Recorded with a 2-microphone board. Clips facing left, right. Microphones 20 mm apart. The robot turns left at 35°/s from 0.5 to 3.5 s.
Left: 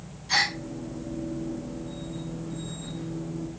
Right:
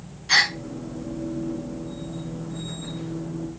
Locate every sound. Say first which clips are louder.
0.3 s a gasp: right 5 dB; 50° right (ahead or behind), 0.6 m; by 0.6 s 45° right (ahead or behind), 0.6 m